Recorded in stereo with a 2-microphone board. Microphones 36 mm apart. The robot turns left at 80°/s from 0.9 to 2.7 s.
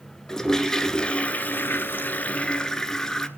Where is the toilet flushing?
160° left, 0.9 m; by 3.3 s 20° left, 0.9 m.